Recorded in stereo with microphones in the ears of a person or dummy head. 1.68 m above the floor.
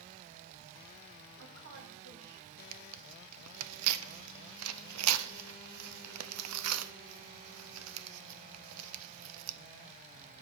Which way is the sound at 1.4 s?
70° right (ahead or behind).